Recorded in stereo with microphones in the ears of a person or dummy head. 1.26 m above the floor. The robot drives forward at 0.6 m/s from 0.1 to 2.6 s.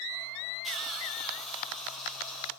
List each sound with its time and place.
0.6 s a hiss: centre (ahead or behind), 1.8 m